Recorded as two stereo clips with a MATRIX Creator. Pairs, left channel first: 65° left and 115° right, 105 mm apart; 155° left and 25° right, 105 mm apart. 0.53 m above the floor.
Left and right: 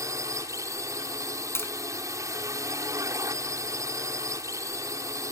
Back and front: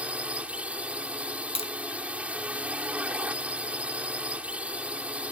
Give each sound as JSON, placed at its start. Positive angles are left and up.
{"t": 0.0, "sound": "a drone", "azimuth_deg": -90}
{"t": 1.6, "sound": "tapping", "azimuth_deg": 135}